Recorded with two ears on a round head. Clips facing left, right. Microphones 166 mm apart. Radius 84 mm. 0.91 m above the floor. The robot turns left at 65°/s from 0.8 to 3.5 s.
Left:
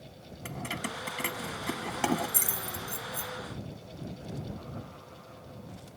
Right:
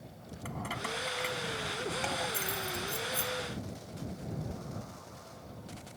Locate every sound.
0.5 s keys jangling: 30° left (ahead or behind); by 3.3 s 15° right (ahead or behind)